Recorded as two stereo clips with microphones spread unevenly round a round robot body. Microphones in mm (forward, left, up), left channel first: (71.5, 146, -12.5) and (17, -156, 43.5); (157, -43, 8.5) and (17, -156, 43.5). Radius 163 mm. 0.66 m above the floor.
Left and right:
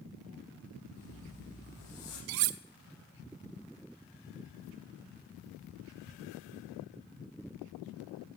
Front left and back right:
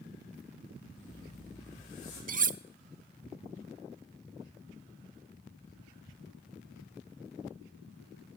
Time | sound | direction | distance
1.0 | a zipper | 60° left | 7.5 m
2.3 | cutlery clinking | 90° right | 0.6 m